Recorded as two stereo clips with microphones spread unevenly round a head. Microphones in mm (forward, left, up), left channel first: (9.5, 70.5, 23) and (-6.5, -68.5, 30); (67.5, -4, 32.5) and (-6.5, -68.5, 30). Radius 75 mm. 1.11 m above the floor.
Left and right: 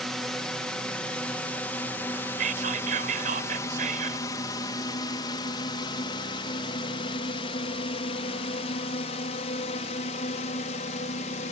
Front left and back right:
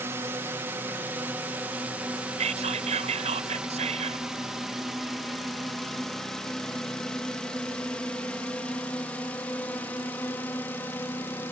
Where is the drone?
170° left; by 11.5 s 115° left.